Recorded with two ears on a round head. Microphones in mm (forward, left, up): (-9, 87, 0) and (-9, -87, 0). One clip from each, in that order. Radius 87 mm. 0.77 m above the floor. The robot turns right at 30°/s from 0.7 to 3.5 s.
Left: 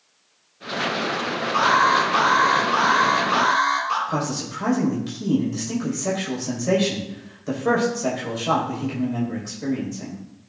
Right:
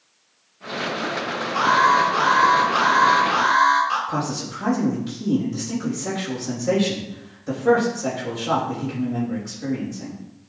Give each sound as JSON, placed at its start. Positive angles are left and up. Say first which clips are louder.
{"t": 1.5, "sound": "an alarm", "louder": "right 1 dB", "azimuth_deg": 100, "distance_m": 4.0}
{"t": 4.1, "sound": "a man speaking", "louder": "even", "side_deg": 30, "distance_m": 4.5}